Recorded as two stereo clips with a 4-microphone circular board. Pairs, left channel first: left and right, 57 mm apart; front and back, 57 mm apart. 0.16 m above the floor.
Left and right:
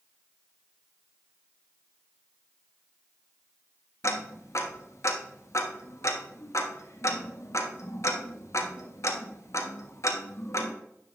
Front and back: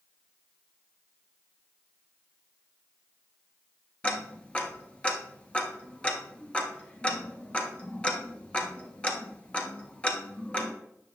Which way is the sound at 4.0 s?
70° left.